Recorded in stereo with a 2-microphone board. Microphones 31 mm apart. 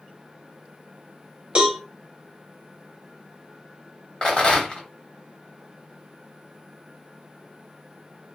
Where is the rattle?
30° left (ahead or behind), 1.1 m.